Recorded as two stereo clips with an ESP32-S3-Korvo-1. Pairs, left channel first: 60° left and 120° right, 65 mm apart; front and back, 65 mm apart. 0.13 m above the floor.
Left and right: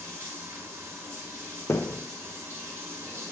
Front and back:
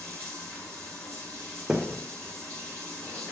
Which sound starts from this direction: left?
A thud, at 1.7 s.